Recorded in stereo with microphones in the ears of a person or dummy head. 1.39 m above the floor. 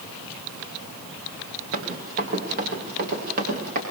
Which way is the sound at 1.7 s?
50° right (ahead or behind).